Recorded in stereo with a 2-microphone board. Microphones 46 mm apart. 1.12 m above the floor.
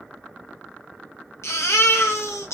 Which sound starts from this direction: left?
A baby crying, at 1.4 s.